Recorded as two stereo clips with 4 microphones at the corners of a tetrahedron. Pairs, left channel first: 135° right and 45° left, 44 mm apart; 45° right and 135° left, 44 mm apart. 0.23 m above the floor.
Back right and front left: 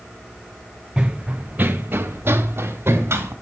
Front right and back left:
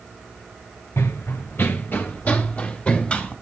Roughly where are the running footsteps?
Ahead right.